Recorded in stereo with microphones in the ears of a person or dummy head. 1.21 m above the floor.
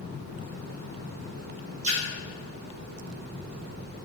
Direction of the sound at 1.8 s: 35° right (ahead or behind).